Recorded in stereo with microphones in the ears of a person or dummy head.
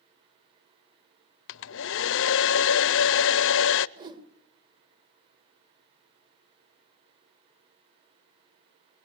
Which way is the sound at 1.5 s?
70° left (ahead or behind).